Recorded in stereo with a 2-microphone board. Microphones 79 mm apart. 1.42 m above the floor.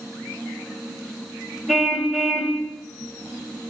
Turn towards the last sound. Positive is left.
turn(degrees=0)  # may be behind; listen again after turning